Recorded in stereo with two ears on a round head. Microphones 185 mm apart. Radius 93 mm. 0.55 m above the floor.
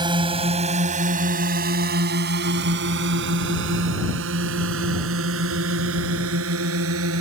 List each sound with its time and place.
0.0 s a drone: 25° right (ahead or behind); by 7.2 s 80° right